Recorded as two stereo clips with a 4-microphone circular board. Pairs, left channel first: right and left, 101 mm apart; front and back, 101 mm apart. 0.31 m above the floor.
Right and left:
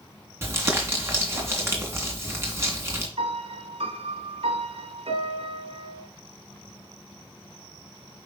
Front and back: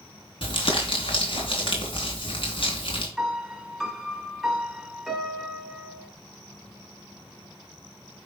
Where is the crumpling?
25° left, 3 m.